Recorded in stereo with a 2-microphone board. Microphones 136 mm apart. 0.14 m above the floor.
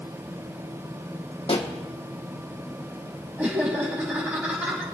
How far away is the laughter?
About 6.5 m.